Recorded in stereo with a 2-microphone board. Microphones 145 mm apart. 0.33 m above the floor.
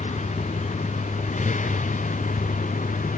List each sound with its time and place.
0.0 s a vehicle: 55° left (ahead or behind); by 3.2 s 60° left (ahead or behind)